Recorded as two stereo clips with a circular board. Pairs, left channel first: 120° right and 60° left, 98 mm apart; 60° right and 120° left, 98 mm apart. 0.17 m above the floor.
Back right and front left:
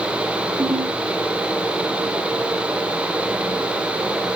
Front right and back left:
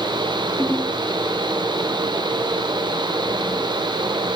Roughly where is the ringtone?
Ahead left.